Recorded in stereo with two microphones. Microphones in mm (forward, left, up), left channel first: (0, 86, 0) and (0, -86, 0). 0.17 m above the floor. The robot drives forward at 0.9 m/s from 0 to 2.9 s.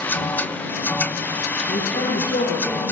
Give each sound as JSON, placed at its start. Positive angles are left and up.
{"t": 1.7, "sound": "a man speaking", "side_deg": 70, "distance_m": 3.5}